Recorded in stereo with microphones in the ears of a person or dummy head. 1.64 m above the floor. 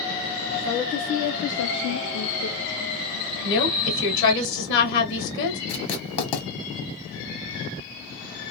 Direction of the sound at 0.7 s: 15° left (ahead or behind).